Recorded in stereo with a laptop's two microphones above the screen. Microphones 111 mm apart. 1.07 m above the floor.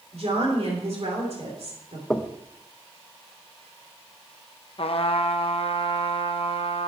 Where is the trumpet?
60° left (ahead or behind), 0.7 m.